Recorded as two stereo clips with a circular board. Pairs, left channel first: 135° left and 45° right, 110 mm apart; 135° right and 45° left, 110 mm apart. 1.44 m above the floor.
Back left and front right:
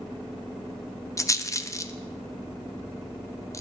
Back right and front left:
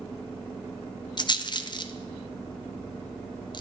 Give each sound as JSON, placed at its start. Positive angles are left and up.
{"t": 1.2, "sound": "a rattle", "azimuth_deg": -170, "distance_m": 0.6}